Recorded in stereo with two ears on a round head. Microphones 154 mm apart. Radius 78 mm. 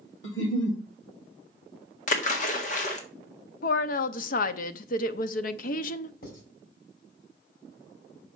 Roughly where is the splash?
Left.